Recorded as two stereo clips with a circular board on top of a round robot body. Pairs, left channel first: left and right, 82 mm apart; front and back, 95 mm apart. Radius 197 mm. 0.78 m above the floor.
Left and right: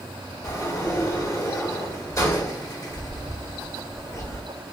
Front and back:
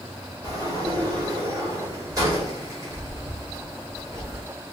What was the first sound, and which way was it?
A sliding door, 135° left.